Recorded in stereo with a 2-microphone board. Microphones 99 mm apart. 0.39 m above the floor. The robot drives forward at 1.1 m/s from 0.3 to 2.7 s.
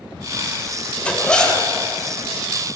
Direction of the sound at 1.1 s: 10° left (ahead or behind).